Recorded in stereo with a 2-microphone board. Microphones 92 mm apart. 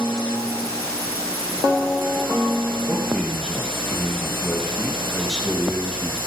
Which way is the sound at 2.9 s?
5° left (ahead or behind).